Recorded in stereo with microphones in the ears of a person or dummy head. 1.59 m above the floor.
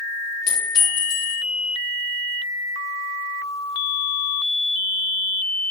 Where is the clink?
50° left (ahead or behind), 1.6 m.